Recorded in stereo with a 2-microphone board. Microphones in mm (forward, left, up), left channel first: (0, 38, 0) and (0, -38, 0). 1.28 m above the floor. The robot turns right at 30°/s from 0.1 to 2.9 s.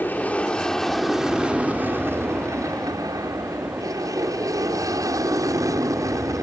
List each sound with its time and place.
0.0 s an aircraft: 25° left (ahead or behind); by 6.4 s 45° right (ahead or behind)